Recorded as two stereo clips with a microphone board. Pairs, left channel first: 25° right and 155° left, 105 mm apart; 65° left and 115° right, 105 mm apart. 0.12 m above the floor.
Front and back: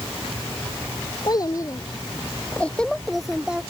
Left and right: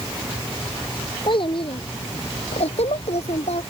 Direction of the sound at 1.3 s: 25° left.